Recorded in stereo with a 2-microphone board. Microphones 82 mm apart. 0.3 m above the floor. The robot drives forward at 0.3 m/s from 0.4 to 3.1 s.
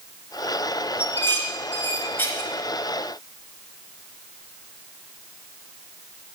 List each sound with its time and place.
1.0 s dishes clattering: 25° left (ahead or behind), 2.5 m